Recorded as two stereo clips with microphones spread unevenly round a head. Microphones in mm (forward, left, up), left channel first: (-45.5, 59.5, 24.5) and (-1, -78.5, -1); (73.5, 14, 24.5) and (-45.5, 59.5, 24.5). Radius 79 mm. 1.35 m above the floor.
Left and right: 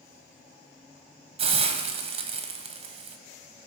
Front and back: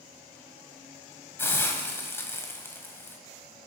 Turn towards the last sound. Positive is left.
turn(degrees=-80)